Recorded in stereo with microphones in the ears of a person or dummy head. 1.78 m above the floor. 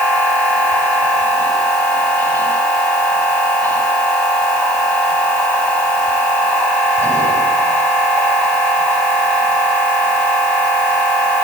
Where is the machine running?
10° left (ahead or behind), 7 m.